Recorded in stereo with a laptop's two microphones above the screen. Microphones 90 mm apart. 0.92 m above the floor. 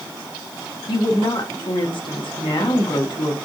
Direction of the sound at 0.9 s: 60° left (ahead or behind).